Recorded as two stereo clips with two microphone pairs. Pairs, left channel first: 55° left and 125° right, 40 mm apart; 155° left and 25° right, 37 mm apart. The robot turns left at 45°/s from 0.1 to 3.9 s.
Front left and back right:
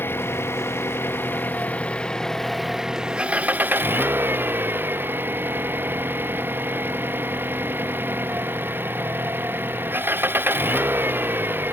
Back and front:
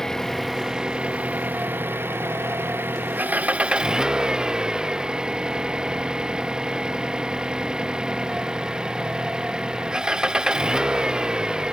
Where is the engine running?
80° left; by 11.7 s 95° right.